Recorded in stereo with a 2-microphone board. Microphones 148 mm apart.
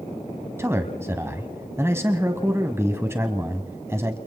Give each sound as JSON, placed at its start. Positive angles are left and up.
{"t": 0.6, "sound": "a man speaking", "side_deg": -15, "distance_m": 1.5}